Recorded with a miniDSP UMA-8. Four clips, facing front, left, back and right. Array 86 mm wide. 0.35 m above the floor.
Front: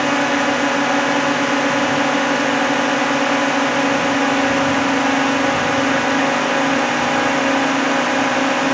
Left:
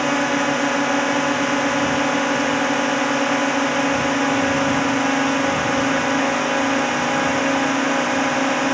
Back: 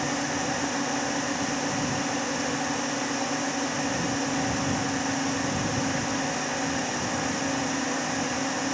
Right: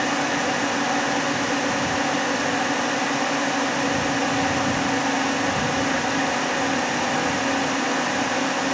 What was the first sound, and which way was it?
A drone, 30° left.